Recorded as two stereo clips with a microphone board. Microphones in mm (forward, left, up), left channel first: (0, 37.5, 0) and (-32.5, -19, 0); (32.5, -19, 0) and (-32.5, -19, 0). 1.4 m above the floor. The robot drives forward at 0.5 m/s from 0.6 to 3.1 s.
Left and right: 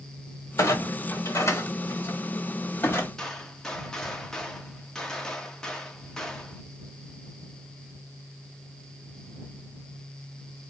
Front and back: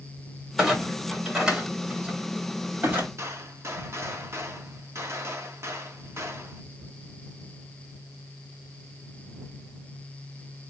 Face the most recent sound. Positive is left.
turn(degrees=140)